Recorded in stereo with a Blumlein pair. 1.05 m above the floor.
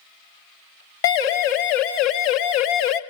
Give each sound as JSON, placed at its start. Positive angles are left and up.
{"t": 1.0, "sound": "a siren", "azimuth_deg": 50, "distance_m": 3.0}